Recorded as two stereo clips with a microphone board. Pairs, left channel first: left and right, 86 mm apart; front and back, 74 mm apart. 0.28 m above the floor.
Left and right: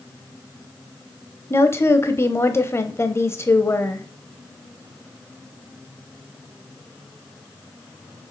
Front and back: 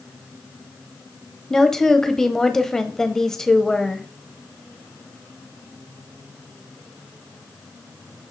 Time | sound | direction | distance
1.5 | a woman speaking | 80° left | 1.2 m